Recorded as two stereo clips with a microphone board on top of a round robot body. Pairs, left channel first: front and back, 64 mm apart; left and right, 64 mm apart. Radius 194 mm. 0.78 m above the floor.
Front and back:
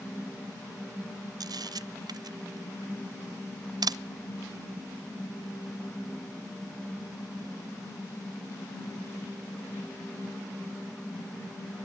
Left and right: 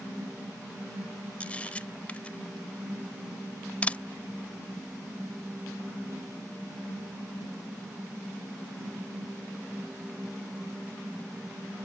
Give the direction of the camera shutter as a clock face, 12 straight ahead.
7 o'clock.